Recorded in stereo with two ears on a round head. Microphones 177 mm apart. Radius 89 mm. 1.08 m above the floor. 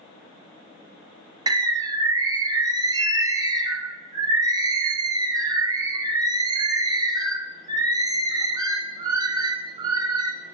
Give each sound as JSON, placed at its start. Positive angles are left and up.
{"t": 1.5, "sound": "a bird", "side_deg": -20, "distance_m": 0.6}